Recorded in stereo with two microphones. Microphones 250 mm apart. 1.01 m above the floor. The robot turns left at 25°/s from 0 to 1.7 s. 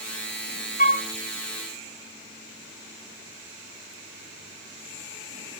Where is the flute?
35° left (ahead or behind), 1.9 m; by 1.1 s 40° left (ahead or behind), 1.9 m.